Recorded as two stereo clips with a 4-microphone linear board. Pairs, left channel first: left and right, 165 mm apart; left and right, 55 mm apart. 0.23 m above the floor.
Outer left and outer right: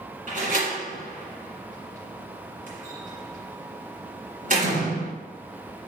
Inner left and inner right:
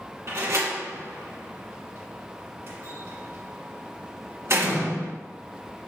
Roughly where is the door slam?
Right.